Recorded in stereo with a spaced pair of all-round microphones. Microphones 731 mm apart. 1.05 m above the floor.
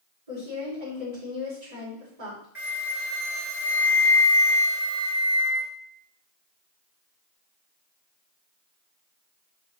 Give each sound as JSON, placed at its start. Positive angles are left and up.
{"t": 0.3, "sound": "a woman speaking", "side_deg": -70, "distance_m": 4.5}
{"t": 2.5, "sound": "a flute", "side_deg": -55, "distance_m": 3.0}